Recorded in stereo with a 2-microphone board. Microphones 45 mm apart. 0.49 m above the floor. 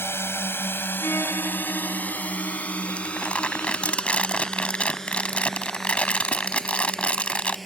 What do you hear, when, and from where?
0.0 s a drone: 65° left (ahead or behind); by 7.7 s 5° left (ahead or behind)
1.0 s a violin: 85° left
3.0 s crumpling: 30° left (ahead or behind)